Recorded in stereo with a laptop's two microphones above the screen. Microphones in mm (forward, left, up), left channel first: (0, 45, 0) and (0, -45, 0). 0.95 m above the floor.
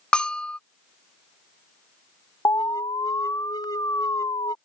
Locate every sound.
0.1 s a bell: 10° left (ahead or behind)
2.5 s an alarm: 40° left (ahead or behind)